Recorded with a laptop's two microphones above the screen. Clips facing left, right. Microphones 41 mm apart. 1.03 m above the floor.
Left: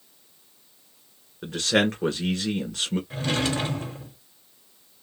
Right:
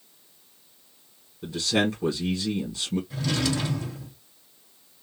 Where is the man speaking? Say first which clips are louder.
Left 2 dB; 55° left (ahead or behind), 1.4 m.